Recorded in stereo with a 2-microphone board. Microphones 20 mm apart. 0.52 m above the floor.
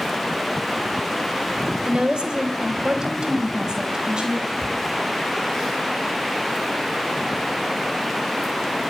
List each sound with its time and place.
1.9 s a woman speaking: 55° right (ahead or behind), 1.8 m; by 4.5 s 40° right (ahead or behind), 3 m
4.6 s a cupboard door: 5° left (ahead or behind), 3.5 m